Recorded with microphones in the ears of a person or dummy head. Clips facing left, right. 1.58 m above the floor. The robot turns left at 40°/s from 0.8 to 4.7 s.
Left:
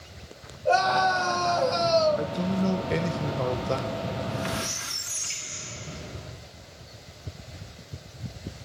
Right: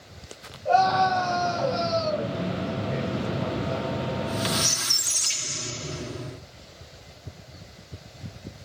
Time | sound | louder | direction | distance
0.7 | a scream | right 2 dB | 150° left | 8.5 m
2.2 | a man speaking | left 2 dB | 125° left | 1.6 m
4.1 | a squeak | right 3 dB | 40° right (ahead or behind) | 2 m